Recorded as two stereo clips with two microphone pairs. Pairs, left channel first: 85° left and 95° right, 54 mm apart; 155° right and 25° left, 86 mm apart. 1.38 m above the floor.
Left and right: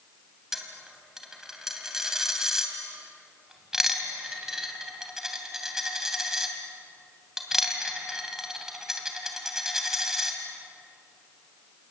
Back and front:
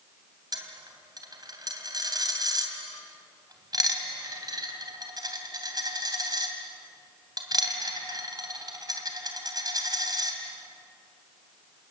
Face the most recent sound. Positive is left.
turn(degrees=-15)